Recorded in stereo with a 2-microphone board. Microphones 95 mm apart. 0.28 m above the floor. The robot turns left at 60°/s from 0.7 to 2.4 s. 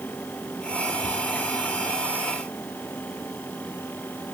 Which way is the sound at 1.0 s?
60° right (ahead or behind).